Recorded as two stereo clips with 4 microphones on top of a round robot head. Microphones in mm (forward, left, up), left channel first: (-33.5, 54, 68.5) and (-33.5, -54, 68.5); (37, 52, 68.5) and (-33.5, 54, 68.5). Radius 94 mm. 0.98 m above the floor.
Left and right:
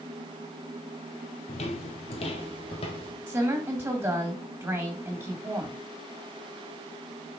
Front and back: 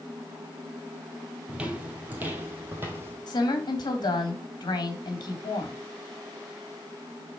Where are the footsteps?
105° left, 1.7 m; by 3.2 s 125° left, 2.5 m.